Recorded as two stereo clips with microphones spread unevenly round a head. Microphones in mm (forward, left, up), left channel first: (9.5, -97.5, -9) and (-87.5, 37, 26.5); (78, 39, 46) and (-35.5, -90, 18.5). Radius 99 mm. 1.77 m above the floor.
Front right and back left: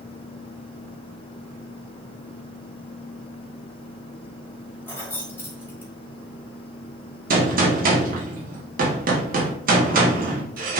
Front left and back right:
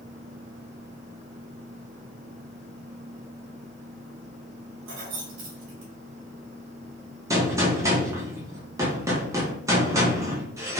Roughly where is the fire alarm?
I don't hear a fire alarm.